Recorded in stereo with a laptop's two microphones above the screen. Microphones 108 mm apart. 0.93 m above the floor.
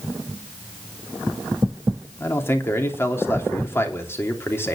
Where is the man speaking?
20° left (ahead or behind), 3 m.